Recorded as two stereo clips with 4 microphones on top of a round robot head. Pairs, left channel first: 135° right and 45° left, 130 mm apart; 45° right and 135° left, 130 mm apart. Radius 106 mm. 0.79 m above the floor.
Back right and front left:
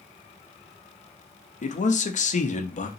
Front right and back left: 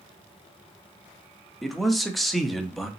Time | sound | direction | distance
1.6 | a man speaking | 135° right | 0.9 m